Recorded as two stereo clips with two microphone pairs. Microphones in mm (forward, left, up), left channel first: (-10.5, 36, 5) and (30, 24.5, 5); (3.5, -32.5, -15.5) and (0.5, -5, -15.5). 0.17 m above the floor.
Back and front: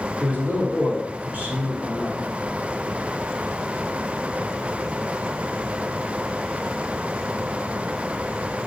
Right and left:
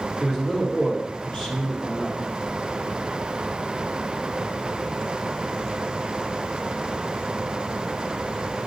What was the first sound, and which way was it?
A man speaking, 25° right.